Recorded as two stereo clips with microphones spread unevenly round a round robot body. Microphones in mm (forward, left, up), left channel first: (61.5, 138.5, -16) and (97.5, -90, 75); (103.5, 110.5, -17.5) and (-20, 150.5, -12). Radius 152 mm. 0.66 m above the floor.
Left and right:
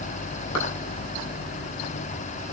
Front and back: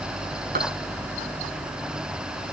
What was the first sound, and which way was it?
A clap, 170° left.